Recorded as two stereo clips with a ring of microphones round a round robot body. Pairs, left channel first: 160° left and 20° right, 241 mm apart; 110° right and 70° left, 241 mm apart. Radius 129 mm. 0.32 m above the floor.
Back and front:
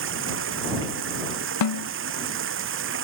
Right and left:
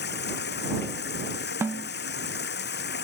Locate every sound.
0.0 s running water: 65° right
1.6 s a snare drum: 150° left